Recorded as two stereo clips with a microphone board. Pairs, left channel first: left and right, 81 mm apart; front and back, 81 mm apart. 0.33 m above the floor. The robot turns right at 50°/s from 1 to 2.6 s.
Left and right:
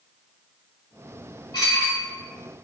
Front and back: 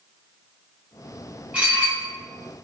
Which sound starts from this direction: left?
Dishes clattering, at 1.5 s.